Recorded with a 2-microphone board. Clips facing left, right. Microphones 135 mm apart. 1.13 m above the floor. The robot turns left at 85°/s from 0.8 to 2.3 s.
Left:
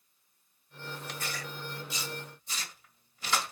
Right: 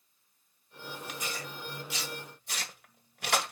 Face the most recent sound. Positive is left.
turn(degrees=-65)  # may be behind; listen again after turning